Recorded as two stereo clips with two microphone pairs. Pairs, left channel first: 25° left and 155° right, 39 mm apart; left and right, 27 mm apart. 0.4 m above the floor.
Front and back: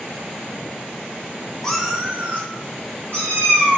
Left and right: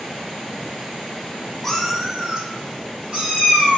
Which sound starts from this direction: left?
A cat meowing, at 1.6 s.